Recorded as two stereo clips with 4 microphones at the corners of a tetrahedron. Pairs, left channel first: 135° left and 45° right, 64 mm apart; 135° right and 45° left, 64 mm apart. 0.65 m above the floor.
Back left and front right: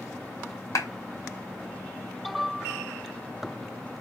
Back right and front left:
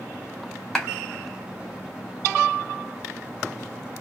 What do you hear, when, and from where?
0.8 s a clap: 140° left, 1.1 m